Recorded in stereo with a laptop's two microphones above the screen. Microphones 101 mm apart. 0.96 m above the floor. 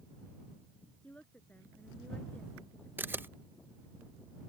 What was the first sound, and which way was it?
A woman speaking, 10° left (ahead or behind).